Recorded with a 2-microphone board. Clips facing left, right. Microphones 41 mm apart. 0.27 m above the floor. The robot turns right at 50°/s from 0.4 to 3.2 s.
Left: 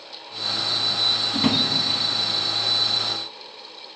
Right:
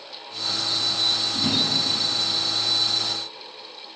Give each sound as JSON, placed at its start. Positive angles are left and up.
{"t": 1.3, "sound": "a drawer", "side_deg": 40, "distance_m": 1.0}